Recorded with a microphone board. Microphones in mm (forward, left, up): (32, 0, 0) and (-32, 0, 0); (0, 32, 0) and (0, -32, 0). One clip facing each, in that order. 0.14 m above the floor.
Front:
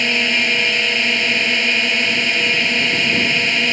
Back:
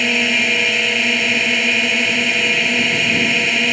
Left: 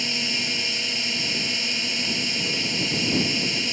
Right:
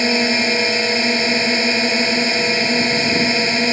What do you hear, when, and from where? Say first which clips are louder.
0.0 s a drone: back 1 dB, right 12 dB; 95° right